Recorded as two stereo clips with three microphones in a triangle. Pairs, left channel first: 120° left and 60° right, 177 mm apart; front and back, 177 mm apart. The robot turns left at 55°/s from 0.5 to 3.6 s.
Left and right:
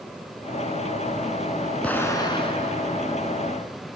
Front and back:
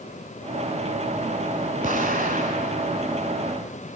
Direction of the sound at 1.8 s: 160° right.